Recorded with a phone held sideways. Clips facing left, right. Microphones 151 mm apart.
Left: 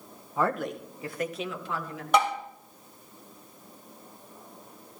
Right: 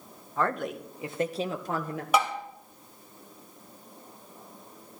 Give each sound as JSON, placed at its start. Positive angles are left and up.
{"t": 0.4, "sound": "a woman speaking", "side_deg": 10, "distance_m": 1.1}
{"t": 2.1, "sound": "tapping", "side_deg": -5, "distance_m": 3.5}